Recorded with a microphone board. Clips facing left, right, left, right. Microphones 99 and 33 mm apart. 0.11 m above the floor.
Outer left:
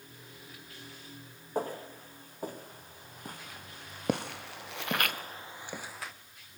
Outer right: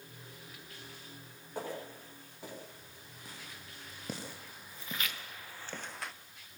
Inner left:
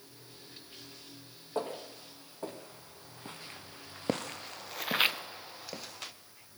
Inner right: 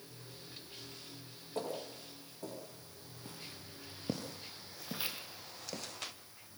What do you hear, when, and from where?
1.6 s footsteps: 40° left (ahead or behind), 5 m; by 6.1 s centre (ahead or behind), 1.7 m